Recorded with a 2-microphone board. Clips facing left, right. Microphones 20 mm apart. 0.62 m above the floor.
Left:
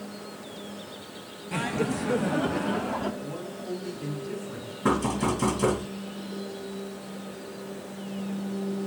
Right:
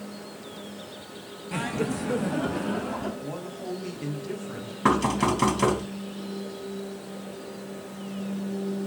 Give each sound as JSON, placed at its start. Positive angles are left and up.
{"t": 1.5, "sound": "laughter", "side_deg": 0, "distance_m": 0.6}
{"t": 3.2, "sound": "a man speaking", "side_deg": -50, "distance_m": 4.0}
{"t": 4.8, "sound": "knocking", "side_deg": -55, "distance_m": 3.0}